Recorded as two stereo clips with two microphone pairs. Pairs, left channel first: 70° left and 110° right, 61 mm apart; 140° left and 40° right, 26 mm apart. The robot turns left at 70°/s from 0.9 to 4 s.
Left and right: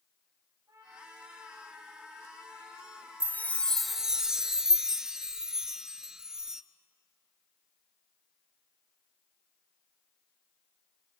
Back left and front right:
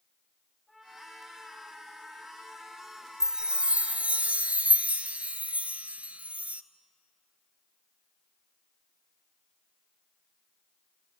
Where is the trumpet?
140° right, 9 m; by 4.2 s 5° left, 9 m.